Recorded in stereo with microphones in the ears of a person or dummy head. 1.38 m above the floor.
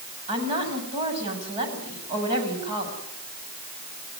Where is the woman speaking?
30° right (ahead or behind), 8 m.